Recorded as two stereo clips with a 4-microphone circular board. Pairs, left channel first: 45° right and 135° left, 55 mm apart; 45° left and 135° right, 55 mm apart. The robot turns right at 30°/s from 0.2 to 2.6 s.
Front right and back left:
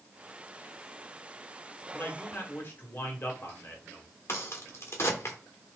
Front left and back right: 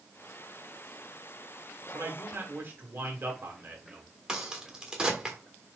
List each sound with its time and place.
1.9 s a man speaking: 110° right, 1.6 m; by 4.0 s 90° right, 1.6 m
4.3 s a crack: 65° right, 1.3 m